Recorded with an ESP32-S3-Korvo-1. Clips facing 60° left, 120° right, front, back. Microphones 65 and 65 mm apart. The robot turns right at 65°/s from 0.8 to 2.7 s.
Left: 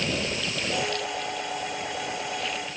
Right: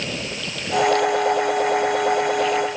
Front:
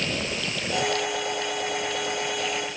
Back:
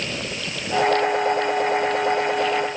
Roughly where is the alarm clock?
No alarm clock in this recording.